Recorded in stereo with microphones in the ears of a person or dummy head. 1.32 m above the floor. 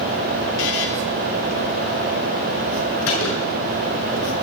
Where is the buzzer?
75° left (ahead or behind), 3 m.